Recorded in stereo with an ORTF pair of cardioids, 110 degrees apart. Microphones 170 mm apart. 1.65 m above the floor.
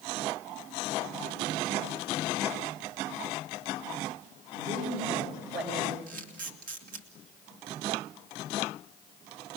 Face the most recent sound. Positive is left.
turn(degrees=-55)